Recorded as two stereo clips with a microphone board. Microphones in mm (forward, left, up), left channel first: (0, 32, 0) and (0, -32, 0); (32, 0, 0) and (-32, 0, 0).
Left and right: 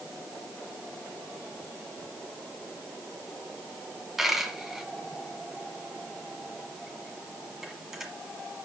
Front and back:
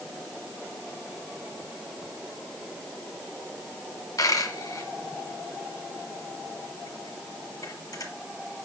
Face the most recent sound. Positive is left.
turn(degrees=-5)